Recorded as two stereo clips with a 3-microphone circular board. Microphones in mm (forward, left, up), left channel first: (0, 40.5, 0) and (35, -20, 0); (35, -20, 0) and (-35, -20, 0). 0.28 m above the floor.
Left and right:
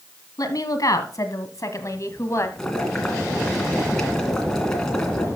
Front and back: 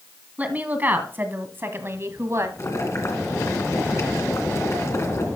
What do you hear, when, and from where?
0.4 s a woman speaking: 115° left, 2.0 m; by 2.5 s 150° left, 1.6 m
2.6 s boiling: 35° left, 2 m